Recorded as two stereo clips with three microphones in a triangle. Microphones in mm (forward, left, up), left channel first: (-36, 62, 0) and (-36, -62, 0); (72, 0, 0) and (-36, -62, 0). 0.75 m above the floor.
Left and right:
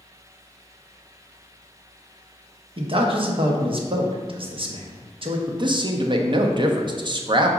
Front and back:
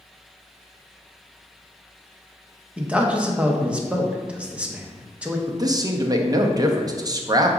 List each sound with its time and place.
2.8 s a man speaking: 70° right, 0.6 m
5.5 s a man speaking: 110° right, 0.5 m